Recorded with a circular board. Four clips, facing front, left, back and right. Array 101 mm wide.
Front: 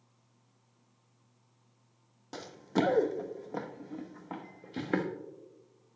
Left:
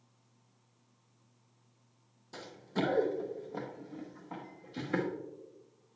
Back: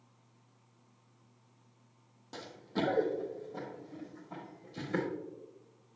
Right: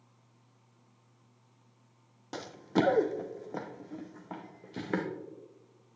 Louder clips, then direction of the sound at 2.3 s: Right 7 dB, front 6 dB; 70° right.